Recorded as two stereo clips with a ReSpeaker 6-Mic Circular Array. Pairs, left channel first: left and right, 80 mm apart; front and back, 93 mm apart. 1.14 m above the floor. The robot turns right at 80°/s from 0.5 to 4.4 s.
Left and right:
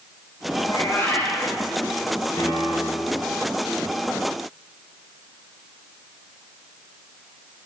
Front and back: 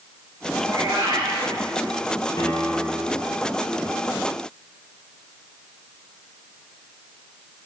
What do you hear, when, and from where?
0.6 s a cat meowing: 110° left, 4.5 m; by 1.5 s 175° right, 4.5 m
2.4 s a piano: 40° left, 2.5 m; by 3.2 s 110° left, 2.5 m